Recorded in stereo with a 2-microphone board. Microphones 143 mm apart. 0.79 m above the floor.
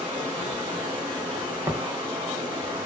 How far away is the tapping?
About 0.6 m.